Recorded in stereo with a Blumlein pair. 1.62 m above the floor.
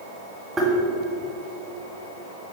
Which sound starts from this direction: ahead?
Tapping, at 0.6 s.